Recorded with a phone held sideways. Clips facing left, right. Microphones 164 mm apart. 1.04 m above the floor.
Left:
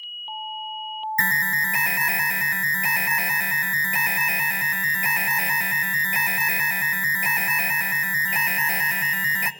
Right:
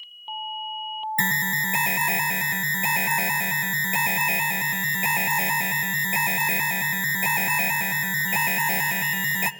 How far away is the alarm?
About 0.9 m.